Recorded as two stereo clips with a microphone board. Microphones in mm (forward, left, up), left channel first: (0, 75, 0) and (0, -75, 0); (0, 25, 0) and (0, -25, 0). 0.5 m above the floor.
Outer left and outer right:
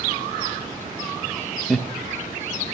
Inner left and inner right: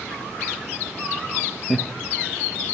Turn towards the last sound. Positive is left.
turn(degrees=0)  # may be behind; listen again after turning